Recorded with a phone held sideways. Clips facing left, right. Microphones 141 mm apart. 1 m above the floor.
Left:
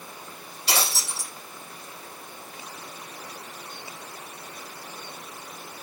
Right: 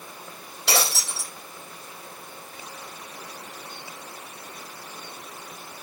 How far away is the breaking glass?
About 5.5 m.